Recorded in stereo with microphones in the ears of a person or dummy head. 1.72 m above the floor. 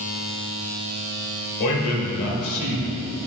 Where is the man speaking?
80° left, 2 m.